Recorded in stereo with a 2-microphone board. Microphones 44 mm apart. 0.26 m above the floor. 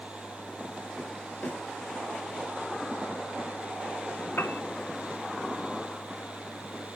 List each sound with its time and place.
1.4 s a snare drum: 55° left (ahead or behind), 6 m
4.4 s a piano: 60° left (ahead or behind), 0.8 m